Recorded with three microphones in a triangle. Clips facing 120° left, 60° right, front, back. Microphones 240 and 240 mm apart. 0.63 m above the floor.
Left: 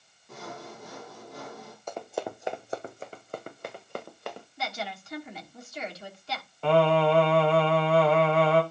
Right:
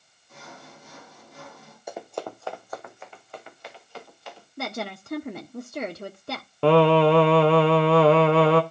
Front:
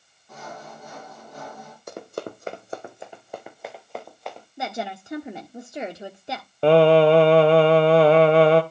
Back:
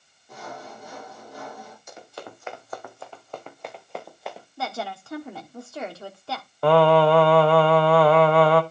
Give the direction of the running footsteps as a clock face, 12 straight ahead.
11 o'clock.